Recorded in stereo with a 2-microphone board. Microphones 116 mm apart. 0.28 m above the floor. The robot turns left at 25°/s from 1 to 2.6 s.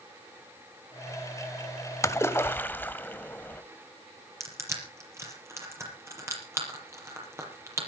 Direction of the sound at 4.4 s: 25° right (ahead or behind).